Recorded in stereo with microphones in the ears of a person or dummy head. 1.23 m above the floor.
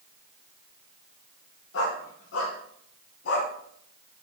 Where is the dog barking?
70° left (ahead or behind), 4 m; by 3.5 s 75° left (ahead or behind), 3 m.